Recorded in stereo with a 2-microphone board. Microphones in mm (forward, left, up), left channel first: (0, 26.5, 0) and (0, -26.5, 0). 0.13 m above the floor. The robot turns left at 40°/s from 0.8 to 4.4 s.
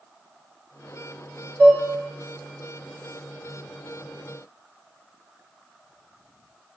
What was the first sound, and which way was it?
Dishes clattering, 35° left (ahead or behind).